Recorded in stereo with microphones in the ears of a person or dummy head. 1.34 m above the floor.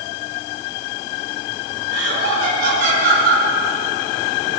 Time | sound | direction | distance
1.9 | laughter | 55° right (ahead or behind) | 9 m